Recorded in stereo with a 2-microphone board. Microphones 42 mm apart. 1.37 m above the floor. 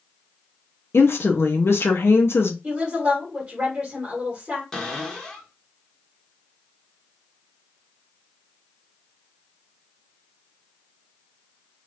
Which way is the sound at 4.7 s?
10° left (ahead or behind).